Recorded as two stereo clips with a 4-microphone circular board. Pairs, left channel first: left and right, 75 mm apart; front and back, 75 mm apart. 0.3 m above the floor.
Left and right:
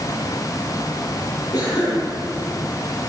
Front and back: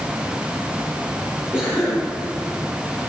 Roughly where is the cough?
Ahead left.